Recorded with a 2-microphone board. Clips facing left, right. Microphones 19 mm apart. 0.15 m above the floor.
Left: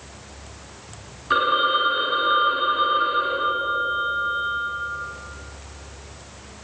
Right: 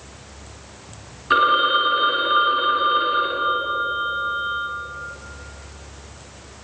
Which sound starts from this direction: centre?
A phone ringing, at 1.3 s.